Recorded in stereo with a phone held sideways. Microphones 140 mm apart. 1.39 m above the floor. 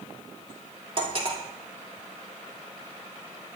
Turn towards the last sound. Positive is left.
turn(degrees=-40)  # may be behind; listen again after turning